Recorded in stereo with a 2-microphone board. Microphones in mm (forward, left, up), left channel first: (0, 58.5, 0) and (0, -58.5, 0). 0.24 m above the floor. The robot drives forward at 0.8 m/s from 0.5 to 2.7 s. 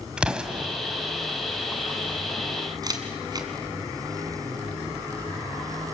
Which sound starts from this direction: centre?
An explosion, at 0.2 s.